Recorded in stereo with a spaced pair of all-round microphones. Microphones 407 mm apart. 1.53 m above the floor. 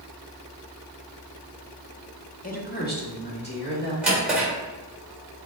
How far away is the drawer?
About 1.8 m.